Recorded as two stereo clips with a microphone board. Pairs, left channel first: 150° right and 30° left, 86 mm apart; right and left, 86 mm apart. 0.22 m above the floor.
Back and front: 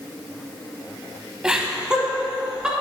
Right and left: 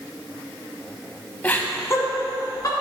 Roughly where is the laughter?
Ahead right.